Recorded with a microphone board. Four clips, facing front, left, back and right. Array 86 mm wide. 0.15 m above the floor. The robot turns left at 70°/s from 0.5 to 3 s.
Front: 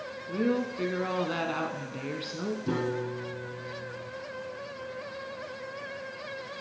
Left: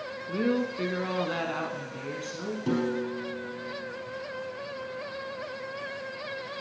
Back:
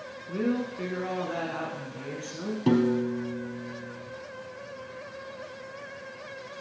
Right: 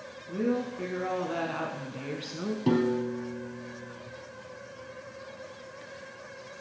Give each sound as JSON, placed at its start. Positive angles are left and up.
{"t": 0.3, "sound": "a woman speaking", "azimuth_deg": 90, "distance_m": 1.1}
{"t": 2.7, "sound": "a piano", "azimuth_deg": -160, "distance_m": 1.9}